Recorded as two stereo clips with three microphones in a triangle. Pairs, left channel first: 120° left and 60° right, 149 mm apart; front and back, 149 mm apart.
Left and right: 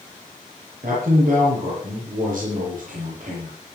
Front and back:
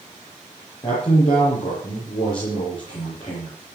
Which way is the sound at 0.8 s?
50° right.